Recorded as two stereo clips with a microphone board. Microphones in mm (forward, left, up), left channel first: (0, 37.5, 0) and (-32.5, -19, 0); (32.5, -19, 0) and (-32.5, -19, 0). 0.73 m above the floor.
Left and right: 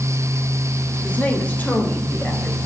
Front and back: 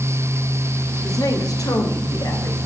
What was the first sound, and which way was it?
A woman speaking, 5° right.